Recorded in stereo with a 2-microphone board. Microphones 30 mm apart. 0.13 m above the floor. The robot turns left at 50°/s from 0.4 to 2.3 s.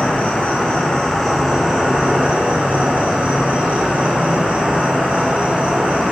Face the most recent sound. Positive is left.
turn(degrees=-45)